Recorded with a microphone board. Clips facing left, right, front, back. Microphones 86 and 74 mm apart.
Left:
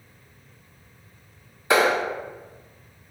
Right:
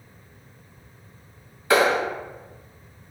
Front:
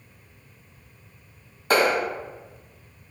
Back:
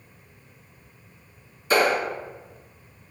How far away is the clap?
About 1.6 m.